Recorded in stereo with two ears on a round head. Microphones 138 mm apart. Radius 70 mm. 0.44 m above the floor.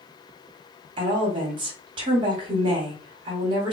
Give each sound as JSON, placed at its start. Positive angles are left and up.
{"t": 1.0, "sound": "a woman speaking", "side_deg": -35, "distance_m": 1.5}